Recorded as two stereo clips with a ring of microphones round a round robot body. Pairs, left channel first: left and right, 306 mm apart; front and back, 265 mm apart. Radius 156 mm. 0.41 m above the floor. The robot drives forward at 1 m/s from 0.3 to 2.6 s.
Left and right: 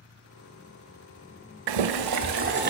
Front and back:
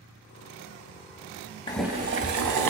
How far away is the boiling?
About 0.5 m.